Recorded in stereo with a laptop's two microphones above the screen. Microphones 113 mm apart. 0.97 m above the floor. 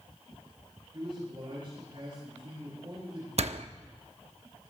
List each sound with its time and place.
0.9 s a man speaking: 50° right (ahead or behind), 6.5 m
3.4 s a door slam: 65° right (ahead or behind), 1.0 m